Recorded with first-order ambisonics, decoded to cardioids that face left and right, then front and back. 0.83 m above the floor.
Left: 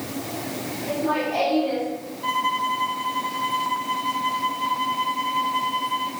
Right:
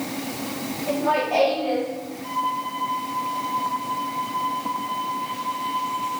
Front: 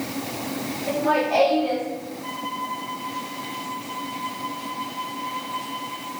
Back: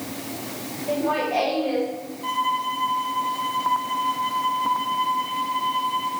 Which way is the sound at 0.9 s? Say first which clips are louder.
Right 3 dB, front 2 dB; 20° right.